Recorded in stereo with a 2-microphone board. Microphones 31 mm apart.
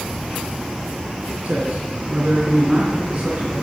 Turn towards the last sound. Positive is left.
turn(degrees=-15)  # may be behind; listen again after turning